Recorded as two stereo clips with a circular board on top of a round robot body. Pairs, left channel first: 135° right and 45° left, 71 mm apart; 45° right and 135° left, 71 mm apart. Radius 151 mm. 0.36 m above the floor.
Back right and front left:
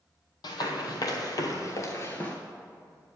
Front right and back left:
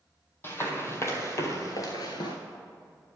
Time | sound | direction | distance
0.4 | running footsteps | 105° right | 1.3 m